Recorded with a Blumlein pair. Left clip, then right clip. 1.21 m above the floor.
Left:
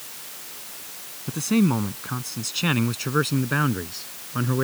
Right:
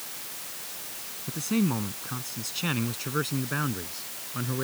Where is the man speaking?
15° left; by 4.7 s 20° left.